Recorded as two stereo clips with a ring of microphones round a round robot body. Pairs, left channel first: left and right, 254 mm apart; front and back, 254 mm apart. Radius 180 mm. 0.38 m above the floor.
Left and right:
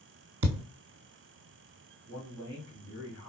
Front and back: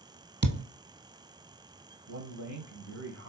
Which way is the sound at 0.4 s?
130° right.